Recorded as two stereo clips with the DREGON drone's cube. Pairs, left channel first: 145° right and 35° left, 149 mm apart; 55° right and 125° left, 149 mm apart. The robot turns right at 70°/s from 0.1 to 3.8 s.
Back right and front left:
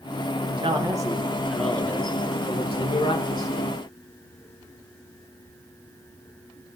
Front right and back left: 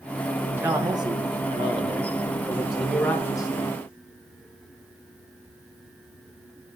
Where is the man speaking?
50° left, 0.9 m; by 3.7 s 85° right, 0.9 m.